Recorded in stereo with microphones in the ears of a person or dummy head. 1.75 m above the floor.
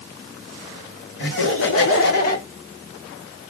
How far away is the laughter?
About 1.7 m.